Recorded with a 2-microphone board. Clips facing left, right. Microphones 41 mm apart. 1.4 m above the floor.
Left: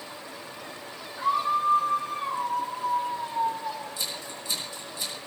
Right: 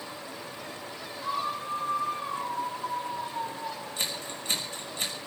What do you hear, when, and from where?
1.2 s a scream: 75° left (ahead or behind), 4.5 m; by 3.9 s 60° left (ahead or behind), 4.5 m
4.0 s scissors: 50° right (ahead or behind), 6 m